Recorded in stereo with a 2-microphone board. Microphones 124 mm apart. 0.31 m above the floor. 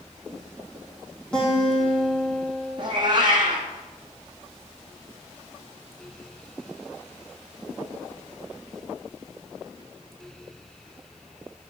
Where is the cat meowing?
40° right (ahead or behind), 2.5 m.